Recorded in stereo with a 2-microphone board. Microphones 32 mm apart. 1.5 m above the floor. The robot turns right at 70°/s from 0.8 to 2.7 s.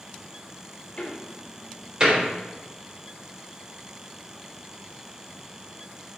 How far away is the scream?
I don't hear a scream.